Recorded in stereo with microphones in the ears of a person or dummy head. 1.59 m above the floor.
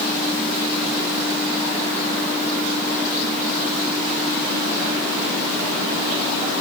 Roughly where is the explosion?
I don't hear an explosion.